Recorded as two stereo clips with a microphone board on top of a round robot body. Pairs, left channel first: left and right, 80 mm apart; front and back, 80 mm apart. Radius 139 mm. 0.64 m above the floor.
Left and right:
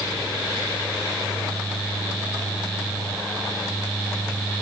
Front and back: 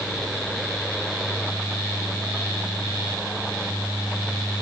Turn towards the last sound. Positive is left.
No sound to turn to.